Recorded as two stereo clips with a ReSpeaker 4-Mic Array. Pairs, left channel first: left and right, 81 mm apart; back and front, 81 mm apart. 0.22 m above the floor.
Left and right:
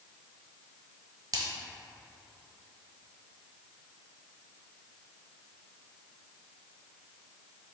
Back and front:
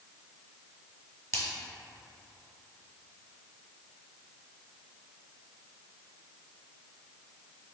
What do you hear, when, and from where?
1.3 s a splash: 130° right, 1.3 m